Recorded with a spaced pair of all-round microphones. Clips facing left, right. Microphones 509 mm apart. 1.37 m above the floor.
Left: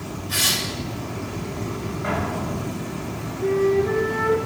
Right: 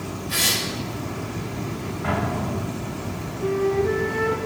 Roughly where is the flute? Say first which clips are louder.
Left 2 dB; right.